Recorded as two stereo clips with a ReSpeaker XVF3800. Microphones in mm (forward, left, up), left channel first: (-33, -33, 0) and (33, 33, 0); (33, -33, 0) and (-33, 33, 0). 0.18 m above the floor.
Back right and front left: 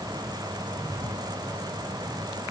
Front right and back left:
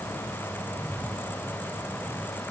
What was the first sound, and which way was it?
Only background noise.